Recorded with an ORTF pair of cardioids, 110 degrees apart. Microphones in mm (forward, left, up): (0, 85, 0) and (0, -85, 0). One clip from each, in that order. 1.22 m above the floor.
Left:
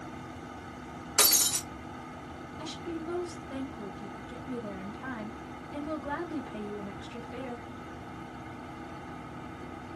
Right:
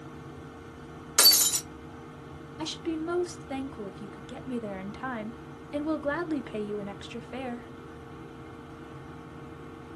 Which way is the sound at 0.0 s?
40° left.